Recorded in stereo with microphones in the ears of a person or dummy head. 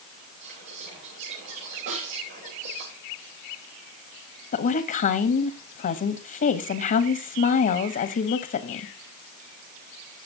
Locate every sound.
0.4 s whispering: 50° right (ahead or behind), 4 m
1.9 s a snare drum: 75° right (ahead or behind), 9 m
4.5 s a woman speaking: 45° left (ahead or behind), 0.9 m